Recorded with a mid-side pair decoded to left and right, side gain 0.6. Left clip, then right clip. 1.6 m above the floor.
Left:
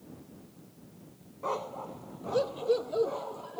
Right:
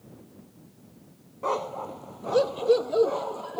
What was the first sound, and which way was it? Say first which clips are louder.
A dog barking: right 5 dB; 25° right.